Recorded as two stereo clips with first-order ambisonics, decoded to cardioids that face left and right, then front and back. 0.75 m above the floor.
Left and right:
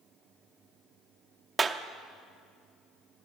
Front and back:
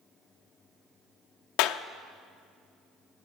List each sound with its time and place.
1.6 s a clap: 20° right, 0.7 m